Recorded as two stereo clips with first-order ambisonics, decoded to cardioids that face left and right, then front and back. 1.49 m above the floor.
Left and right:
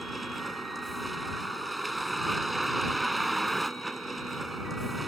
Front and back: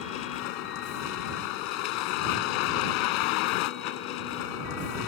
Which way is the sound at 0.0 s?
5° right.